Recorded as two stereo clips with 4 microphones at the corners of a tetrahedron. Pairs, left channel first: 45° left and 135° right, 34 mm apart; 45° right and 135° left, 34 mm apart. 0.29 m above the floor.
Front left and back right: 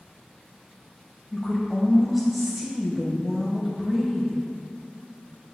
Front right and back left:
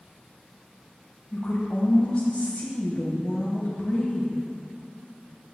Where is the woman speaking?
50° right, 1.5 m.